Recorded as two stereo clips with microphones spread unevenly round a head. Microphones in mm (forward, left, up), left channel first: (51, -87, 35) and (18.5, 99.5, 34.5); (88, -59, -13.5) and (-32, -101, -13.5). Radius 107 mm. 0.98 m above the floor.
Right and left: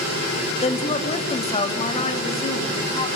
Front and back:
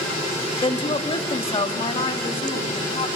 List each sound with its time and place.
0.6 s a woman speaking: 25° right, 1.6 m; by 3.1 s 20° right, 3 m